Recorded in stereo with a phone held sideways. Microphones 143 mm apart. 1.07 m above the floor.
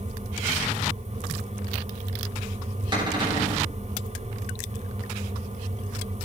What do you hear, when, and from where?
0.0 s a fan: 50° right (ahead or behind), 1.1 m
2.9 s a cupboard door: 30° right (ahead or behind), 6.5 m